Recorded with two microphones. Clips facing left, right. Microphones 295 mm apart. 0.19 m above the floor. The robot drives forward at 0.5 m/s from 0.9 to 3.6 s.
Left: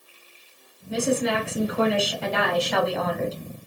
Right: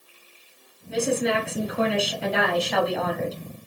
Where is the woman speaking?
Centre (ahead or behind), 1.9 m.